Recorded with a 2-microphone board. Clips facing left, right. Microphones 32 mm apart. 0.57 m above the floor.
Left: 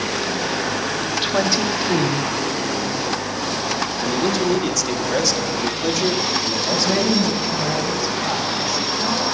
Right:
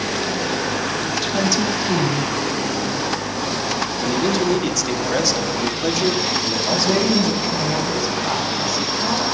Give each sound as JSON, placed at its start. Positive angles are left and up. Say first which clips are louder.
{"t": 1.2, "sound": "a woman speaking", "louder": "left 1 dB", "side_deg": 40, "distance_m": 1.0}
{"t": 4.0, "sound": "a man speaking", "louder": "right 1 dB", "side_deg": 0, "distance_m": 0.7}
{"t": 6.7, "sound": "a woman speaking", "louder": "right 1 dB", "side_deg": 0, "distance_m": 3.0}